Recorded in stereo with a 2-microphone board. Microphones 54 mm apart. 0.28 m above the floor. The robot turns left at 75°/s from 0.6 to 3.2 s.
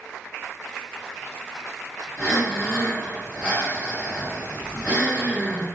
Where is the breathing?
35° left, 1.4 m; by 5.7 s 45° right, 1.4 m.